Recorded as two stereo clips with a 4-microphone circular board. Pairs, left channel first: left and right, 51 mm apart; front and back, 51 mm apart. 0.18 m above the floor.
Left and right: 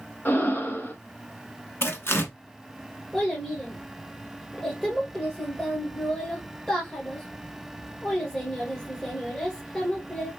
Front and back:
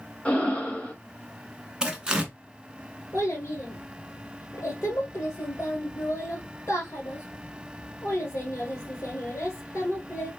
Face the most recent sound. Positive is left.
turn(degrees=10)